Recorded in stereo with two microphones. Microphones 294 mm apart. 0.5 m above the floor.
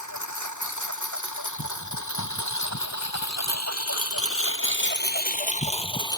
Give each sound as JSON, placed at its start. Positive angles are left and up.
{"t": 0.0, "sound": "a lawn mower", "side_deg": 85}